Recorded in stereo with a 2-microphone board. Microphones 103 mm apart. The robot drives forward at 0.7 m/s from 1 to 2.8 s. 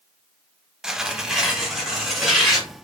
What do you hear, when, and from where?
0.8 s tearing paper: 5° right (ahead or behind), 0.6 m; by 2.7 s centre (ahead or behind), 1.7 m